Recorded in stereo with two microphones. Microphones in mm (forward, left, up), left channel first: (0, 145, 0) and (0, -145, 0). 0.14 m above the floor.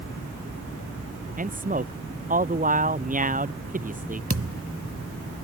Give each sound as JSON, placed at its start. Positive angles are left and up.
{"t": 1.4, "sound": "a man speaking", "side_deg": -30}
{"t": 4.3, "sound": "a thud", "side_deg": -50}